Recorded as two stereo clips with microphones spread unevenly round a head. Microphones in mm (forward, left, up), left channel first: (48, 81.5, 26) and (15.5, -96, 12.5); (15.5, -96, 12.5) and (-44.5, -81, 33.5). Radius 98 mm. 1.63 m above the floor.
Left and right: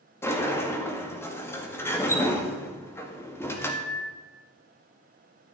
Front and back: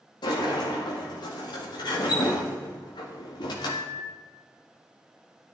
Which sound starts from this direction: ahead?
A sliding door, at 0.2 s.